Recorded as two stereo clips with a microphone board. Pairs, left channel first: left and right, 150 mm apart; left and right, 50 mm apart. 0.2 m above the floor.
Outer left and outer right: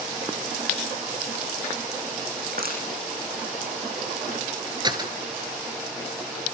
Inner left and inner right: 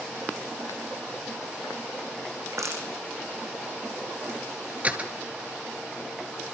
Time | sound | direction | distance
2.4 | crushing | 80° right | 7.5 m
4.8 | a door slam | 30° right (ahead or behind) | 2.5 m